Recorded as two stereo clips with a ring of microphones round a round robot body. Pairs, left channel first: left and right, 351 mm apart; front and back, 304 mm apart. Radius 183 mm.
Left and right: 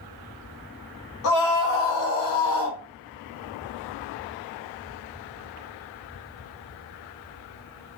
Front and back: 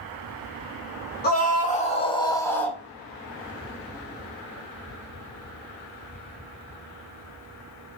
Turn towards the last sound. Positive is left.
turn(degrees=90)